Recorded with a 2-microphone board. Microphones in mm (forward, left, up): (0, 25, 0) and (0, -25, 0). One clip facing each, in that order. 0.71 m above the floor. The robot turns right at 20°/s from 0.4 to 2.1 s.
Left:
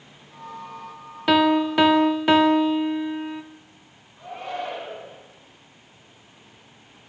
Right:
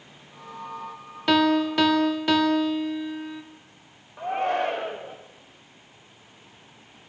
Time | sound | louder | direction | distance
1.3 | a piano | left 2 dB | 10° left (ahead or behind) | 0.6 m
4.2 | a shout | right 7 dB | 50° right (ahead or behind) | 1.6 m